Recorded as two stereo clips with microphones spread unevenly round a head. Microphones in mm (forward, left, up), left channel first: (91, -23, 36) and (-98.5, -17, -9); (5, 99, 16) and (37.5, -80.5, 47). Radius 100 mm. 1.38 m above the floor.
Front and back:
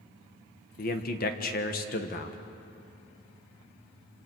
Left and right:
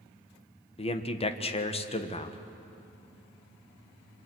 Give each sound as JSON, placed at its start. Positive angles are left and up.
{"t": 0.8, "sound": "a man speaking", "azimuth_deg": 45, "distance_m": 1.3}